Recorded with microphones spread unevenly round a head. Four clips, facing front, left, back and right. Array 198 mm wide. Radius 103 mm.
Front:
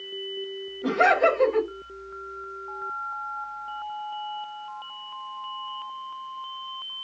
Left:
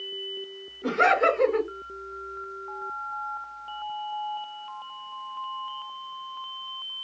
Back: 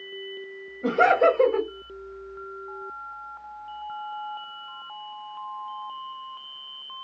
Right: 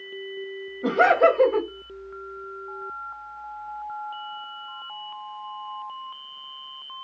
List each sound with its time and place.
0.8 s laughter: 115° right, 1.7 m